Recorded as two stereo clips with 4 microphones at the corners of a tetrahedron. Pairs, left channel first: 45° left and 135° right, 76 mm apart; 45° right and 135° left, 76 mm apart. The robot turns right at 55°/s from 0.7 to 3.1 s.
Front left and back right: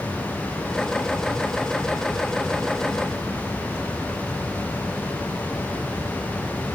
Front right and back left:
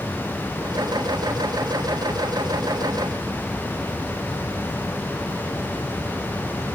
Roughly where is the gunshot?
I don't hear a gunshot.